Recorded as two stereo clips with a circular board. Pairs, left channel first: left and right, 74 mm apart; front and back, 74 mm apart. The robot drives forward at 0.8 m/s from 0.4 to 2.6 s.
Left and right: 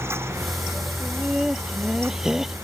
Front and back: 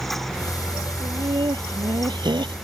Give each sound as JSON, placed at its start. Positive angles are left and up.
{"t": 1.0, "sound": "laughter", "azimuth_deg": -175}